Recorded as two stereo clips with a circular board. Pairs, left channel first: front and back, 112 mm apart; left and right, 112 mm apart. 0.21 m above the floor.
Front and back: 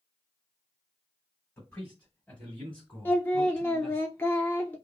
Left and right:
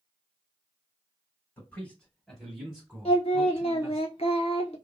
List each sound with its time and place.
1.6 s a man speaking: 45° left, 1.6 m; by 4.0 s 85° right, 1.7 m
3.0 s singing: 70° left, 0.6 m